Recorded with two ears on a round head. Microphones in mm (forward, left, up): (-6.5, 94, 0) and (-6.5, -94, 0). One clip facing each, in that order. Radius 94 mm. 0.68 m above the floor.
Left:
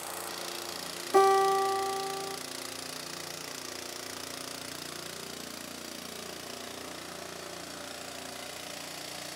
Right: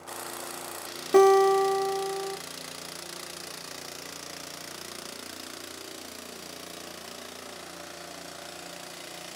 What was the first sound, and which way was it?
A guitar, 45° right (ahead or behind).